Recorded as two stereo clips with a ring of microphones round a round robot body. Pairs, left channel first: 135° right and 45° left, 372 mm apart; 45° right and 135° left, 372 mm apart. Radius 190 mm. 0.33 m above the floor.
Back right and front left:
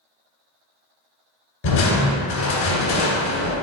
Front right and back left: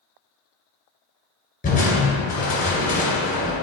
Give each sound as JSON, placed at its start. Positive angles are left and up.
{"t": 1.6, "sound": "crushing", "azimuth_deg": -115, "distance_m": 2.0}